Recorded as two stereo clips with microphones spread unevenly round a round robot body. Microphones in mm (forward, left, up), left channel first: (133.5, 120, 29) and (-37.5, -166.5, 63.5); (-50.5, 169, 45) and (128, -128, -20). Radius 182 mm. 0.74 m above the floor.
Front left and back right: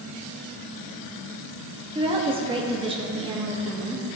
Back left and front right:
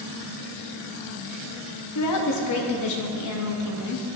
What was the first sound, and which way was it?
A woman speaking, 165° left.